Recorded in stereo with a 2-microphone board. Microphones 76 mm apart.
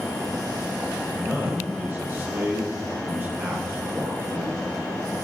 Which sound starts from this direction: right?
A man speaking, at 1.1 s.